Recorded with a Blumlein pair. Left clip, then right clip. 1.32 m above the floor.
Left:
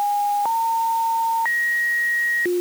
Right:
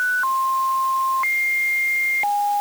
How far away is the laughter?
I don't hear laughter.